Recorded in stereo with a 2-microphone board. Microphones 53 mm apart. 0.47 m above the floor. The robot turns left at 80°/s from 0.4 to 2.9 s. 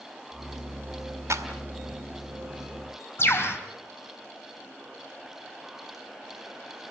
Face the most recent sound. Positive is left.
turn(degrees=45)  # may be behind; listen again after turning